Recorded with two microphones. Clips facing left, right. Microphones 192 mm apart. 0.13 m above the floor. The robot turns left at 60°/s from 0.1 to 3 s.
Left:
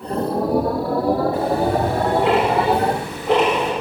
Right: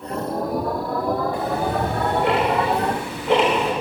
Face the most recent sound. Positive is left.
turn(degrees=60)  # may be behind; listen again after turning